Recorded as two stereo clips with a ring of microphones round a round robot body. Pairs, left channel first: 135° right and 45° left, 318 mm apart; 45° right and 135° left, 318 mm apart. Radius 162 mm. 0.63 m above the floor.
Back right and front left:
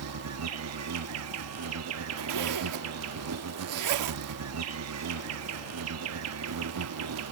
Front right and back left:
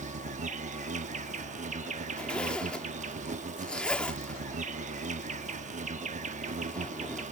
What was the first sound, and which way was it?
An insect, 70° left.